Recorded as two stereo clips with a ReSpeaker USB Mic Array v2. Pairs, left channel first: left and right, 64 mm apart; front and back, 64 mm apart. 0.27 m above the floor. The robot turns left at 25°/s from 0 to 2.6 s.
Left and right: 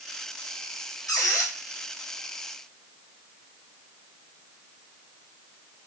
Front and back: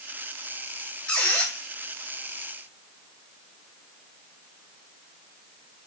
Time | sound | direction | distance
1.1 | a squeak | 70° left | 1.8 m